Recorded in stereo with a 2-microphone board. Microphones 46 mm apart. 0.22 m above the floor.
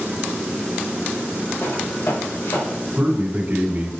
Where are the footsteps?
80° left, 3.5 m; by 2.8 s 85° left, 4.5 m.